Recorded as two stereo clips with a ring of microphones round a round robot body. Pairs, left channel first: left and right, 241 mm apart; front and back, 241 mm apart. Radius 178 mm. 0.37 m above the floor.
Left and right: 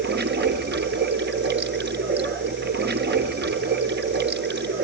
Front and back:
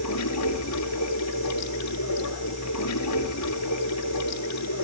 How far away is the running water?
About 1.8 m.